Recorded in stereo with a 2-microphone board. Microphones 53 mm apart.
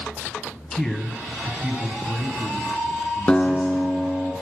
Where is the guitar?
20° left (ahead or behind), 1.1 m.